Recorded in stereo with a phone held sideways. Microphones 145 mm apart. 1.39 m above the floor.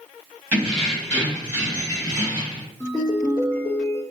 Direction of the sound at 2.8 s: 25° left (ahead or behind).